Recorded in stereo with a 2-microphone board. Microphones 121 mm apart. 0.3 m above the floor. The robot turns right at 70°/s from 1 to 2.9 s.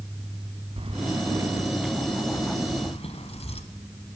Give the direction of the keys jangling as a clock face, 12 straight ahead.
2 o'clock.